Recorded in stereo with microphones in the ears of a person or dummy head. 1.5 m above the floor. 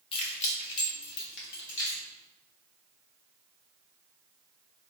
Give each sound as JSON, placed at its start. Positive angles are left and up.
{"t": 0.1, "sound": "keys jangling", "side_deg": 30, "distance_m": 0.9}